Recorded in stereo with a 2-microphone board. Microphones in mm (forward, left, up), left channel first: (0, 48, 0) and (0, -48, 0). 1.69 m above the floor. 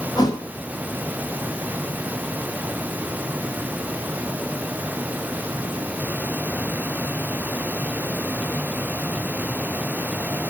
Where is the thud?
40° left (ahead or behind), 3 m.